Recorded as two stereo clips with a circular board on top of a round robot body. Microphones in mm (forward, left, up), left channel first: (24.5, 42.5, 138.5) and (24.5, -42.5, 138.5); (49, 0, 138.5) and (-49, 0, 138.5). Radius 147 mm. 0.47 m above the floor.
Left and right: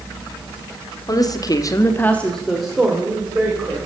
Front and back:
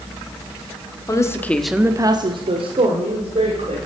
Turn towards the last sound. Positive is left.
turn(degrees=-165)